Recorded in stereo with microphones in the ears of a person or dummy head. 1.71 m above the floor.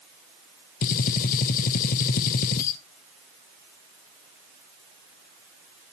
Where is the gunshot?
45° left (ahead or behind), 0.6 m.